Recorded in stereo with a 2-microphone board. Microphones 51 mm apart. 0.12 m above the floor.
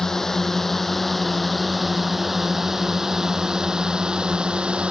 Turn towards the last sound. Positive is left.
turn(degrees=-20)  # may be behind; listen again after turning